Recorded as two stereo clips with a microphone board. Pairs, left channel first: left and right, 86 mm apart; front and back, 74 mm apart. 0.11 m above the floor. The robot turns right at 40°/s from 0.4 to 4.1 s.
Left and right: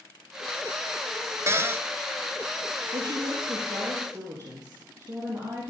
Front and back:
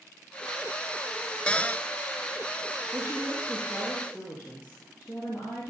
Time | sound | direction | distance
1.5 | a cupboard door | 65° right | 0.6 m
2.9 | a woman speaking | 120° right | 3.5 m